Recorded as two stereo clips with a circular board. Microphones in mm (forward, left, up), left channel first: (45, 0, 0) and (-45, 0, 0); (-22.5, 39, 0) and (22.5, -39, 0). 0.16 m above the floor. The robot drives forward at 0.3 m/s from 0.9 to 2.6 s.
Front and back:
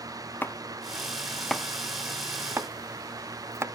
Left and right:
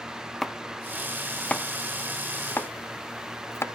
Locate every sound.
0.4 s chopping: 35° left, 0.6 m; by 3.6 s 155° left, 0.6 m